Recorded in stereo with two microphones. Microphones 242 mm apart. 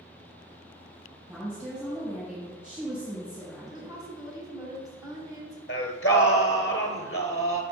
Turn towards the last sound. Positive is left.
turn(degrees=55)  # may be behind; listen again after turning